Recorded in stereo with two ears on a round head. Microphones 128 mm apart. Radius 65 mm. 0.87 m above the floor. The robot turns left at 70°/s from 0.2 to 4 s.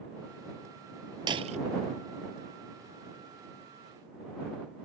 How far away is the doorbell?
I don't hear a doorbell.